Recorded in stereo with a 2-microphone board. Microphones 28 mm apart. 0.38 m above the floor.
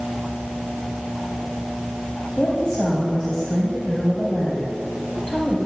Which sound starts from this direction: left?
A woman speaking, at 2.4 s.